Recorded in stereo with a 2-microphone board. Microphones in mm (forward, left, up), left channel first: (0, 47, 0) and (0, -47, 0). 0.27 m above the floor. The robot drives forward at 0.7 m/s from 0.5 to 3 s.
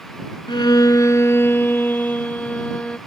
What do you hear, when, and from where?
0.5 s a violin: 60° left (ahead or behind); by 3.0 s 15° left (ahead or behind)